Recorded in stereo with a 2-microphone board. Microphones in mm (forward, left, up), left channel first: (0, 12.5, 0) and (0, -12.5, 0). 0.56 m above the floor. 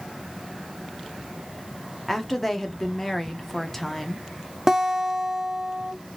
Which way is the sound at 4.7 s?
20° right (ahead or behind).